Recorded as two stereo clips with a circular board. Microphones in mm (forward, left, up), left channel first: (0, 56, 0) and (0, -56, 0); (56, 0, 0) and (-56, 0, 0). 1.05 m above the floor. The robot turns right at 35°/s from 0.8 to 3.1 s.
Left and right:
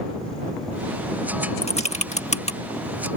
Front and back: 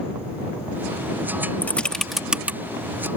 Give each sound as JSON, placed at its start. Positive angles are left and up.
{"t": 1.6, "sound": "typing on a keyboard", "azimuth_deg": 75}